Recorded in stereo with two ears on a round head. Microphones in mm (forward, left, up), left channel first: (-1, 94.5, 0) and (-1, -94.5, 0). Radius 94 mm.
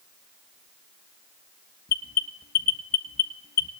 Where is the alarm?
45° left (ahead or behind), 1.6 m.